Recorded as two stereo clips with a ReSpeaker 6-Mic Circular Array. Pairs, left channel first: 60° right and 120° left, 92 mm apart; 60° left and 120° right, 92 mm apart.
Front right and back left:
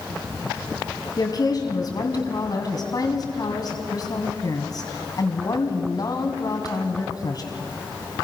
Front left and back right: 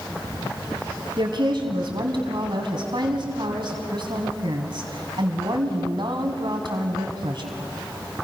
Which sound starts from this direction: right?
A woman speaking, at 1.2 s.